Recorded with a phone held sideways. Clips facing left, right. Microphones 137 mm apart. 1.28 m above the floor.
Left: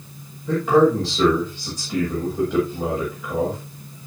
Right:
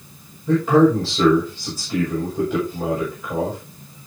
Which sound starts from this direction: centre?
A man speaking, at 0.5 s.